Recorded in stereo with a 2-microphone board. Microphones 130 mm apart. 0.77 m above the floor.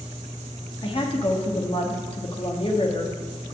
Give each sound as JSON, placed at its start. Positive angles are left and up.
{"t": 0.8, "sound": "a woman speaking", "side_deg": 40, "distance_m": 1.3}